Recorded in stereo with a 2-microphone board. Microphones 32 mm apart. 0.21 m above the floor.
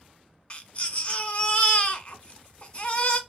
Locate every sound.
0.5 s a baby crying: 35° left (ahead or behind), 0.7 m